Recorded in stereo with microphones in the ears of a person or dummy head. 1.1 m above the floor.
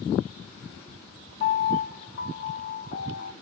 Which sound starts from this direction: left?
A piano, at 1.4 s.